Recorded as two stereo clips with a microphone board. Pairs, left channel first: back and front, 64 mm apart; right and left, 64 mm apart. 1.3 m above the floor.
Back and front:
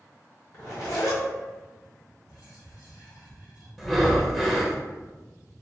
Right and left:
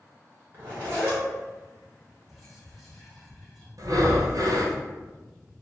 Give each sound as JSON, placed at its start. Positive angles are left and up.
{"t": 0.5, "sound": "a zipper", "azimuth_deg": 145, "distance_m": 1.6}
{"t": 2.3, "sound": "whispering", "azimuth_deg": 180, "distance_m": 2.0}
{"t": 3.8, "sound": "breathing", "azimuth_deg": 90, "distance_m": 0.6}